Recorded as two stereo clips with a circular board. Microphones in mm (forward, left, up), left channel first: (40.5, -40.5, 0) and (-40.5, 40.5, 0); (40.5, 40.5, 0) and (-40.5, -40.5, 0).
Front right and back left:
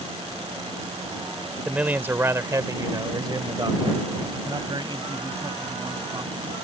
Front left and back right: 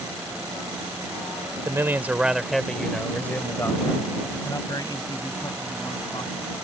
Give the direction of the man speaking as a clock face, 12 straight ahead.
5 o'clock.